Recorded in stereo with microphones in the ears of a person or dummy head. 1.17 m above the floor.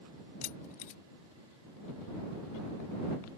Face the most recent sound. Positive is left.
turn(degrees=40)  # may be behind; listen again after turning